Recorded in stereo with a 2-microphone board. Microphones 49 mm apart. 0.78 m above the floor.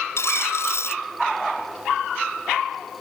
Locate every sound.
0.2 s a dropped coin: 65° left (ahead or behind)